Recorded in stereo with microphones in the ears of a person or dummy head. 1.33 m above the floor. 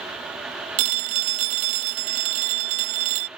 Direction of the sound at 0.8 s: 40° right (ahead or behind).